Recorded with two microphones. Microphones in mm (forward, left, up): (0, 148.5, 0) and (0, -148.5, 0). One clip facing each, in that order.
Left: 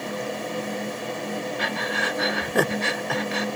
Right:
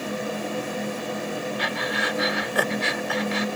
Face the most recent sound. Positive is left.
turn(degrees=55)  # may be behind; listen again after turning